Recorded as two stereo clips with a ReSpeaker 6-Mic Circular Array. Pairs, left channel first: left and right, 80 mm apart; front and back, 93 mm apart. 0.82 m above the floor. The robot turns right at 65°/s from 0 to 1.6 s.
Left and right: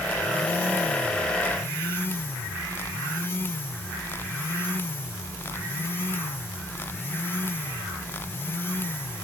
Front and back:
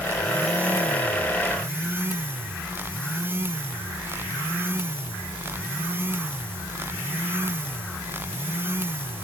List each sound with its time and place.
Only background noise.